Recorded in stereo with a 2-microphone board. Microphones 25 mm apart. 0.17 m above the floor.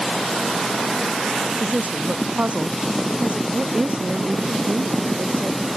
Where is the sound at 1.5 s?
70° right (ahead or behind).